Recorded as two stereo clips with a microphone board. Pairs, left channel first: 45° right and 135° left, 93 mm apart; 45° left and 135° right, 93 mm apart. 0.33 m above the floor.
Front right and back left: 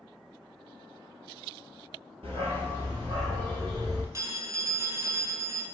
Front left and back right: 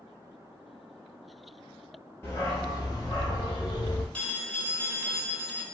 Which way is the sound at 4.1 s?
110° left.